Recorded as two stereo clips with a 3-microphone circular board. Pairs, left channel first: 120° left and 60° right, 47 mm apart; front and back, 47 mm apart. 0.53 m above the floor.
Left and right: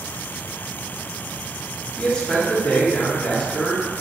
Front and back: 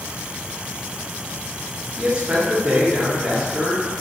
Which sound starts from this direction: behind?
A man speaking, at 2.0 s.